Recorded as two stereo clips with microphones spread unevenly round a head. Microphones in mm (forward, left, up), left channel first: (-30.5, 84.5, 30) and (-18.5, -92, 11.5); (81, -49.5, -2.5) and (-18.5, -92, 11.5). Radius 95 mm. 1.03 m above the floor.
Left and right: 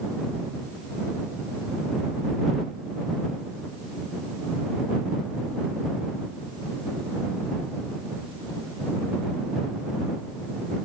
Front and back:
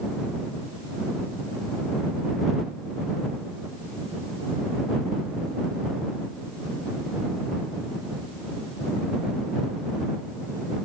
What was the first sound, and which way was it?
Only background noise.